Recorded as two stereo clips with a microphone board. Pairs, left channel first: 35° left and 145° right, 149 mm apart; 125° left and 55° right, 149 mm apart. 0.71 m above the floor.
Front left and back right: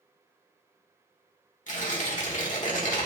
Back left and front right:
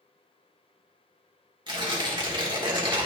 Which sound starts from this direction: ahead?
Tearing paper, at 1.7 s.